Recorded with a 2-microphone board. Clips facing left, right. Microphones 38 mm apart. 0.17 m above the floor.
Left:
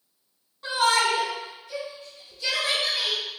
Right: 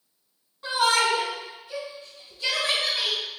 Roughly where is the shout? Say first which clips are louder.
Even; centre.